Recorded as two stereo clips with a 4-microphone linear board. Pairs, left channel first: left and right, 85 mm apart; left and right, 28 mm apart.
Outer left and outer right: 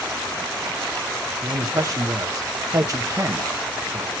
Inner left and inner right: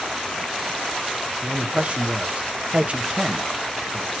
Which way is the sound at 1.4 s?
40° right (ahead or behind).